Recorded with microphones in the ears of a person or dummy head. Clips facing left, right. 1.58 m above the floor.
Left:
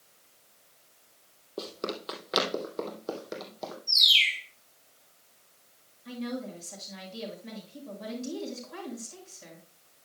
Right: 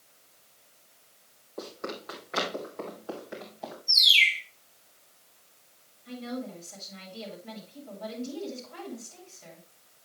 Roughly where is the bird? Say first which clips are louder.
Right 3 dB; centre.